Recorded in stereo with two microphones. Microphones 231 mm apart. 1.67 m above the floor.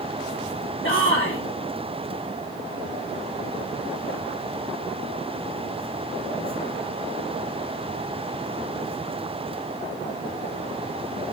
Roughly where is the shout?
Left.